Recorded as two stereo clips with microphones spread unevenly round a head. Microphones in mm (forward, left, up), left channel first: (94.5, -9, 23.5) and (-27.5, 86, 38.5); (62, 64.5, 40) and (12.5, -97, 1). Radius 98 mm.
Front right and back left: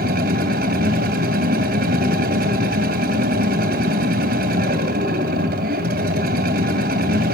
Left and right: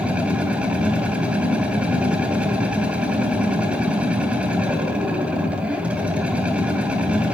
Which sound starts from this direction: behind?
A machine running, at 0.0 s.